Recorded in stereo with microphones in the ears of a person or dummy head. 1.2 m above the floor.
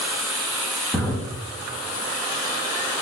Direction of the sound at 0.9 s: 5° right (ahead or behind).